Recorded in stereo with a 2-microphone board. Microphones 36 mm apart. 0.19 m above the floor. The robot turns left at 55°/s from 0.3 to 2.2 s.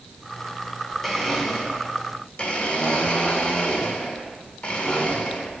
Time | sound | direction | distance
1.0 | a blender | 175° left | 1.6 m